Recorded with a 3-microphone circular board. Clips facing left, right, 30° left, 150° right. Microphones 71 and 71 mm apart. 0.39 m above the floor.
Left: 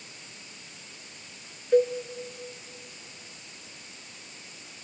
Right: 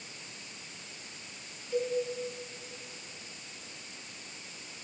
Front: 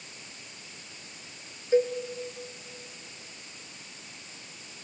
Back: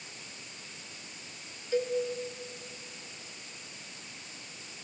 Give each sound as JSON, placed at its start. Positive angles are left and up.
{"t": 1.7, "sound": "a cowbell", "azimuth_deg": 90, "distance_m": 0.9}